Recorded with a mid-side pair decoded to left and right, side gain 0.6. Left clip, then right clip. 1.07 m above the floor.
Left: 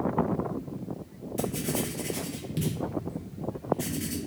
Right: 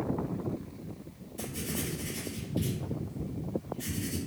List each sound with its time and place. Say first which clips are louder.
1.4 s writing: left 6 dB; 55° left, 0.7 m